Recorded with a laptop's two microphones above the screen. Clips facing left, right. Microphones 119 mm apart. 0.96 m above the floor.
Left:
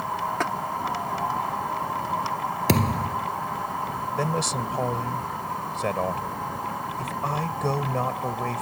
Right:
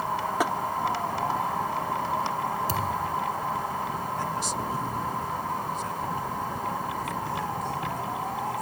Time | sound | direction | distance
0.4 | tapping | 10° right (ahead or behind) | ?
2.7 | a thud | 70° left (ahead or behind) | ?
4.2 | a man speaking | 70° left (ahead or behind) | ?